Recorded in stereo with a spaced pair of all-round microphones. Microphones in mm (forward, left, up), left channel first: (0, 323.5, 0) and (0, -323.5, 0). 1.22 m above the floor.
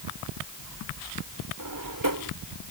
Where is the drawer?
30° right (ahead or behind).